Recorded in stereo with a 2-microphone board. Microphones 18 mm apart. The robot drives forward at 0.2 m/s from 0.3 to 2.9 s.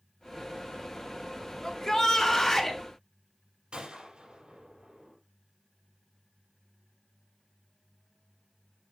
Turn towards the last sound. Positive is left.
turn(degrees=-55)  # may be behind; listen again after turning